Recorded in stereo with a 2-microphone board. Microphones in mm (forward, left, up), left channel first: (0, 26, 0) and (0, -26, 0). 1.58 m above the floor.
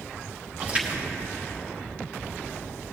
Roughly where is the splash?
Right.